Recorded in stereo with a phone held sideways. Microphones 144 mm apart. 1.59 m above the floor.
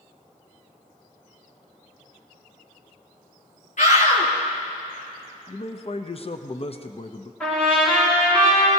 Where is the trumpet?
10° left (ahead or behind), 6.5 m.